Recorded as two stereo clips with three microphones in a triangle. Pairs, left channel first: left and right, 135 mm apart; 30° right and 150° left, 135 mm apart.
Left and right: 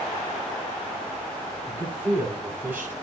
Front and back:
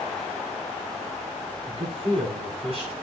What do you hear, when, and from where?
1.7 s a man speaking: 170° right, 9.5 m